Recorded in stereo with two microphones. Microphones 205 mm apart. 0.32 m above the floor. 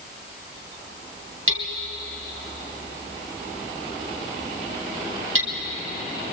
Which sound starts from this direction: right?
Hammering, at 1.5 s.